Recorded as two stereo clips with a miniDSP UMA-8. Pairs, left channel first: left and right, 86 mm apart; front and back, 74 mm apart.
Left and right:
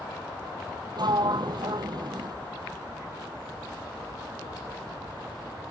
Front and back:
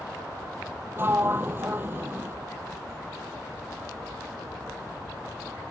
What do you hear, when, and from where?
1.0 s a sliding door: 120° right